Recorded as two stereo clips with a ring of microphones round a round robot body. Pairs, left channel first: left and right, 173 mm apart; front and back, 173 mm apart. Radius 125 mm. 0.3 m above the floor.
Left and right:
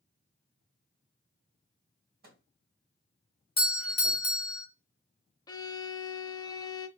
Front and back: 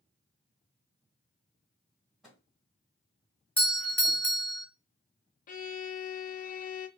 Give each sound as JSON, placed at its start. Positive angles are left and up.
{"t": 2.2, "sound": "a microwave", "azimuth_deg": -95, "distance_m": 2.5}
{"t": 3.6, "sound": "a doorbell", "azimuth_deg": 75, "distance_m": 1.8}
{"t": 5.5, "sound": "a violin", "azimuth_deg": 25, "distance_m": 0.7}